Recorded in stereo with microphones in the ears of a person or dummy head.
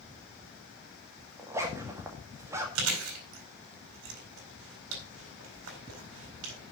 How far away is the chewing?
About 4 m.